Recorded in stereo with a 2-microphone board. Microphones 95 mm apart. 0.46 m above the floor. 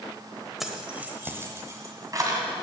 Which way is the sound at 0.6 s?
5° right (ahead or behind).